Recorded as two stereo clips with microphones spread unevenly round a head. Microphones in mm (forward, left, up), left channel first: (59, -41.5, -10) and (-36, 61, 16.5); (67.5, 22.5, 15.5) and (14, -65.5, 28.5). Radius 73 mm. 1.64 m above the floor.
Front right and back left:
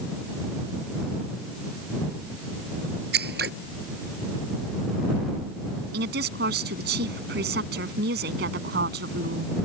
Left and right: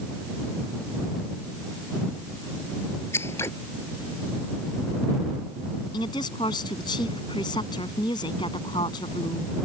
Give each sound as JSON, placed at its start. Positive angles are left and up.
{"t": 3.1, "sound": "scissors", "azimuth_deg": 135}
{"t": 5.9, "sound": "a woman speaking", "azimuth_deg": 120}